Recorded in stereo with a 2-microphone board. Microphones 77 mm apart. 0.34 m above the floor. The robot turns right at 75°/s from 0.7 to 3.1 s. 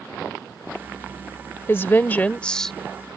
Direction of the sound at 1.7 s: 95° left.